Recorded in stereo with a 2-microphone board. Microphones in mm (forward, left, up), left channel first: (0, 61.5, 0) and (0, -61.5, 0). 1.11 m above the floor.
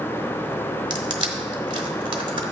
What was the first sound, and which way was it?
Crushing, 40° right (ahead or behind).